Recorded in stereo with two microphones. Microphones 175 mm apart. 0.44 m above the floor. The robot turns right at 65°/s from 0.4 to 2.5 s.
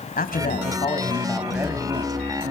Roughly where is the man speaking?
Behind left.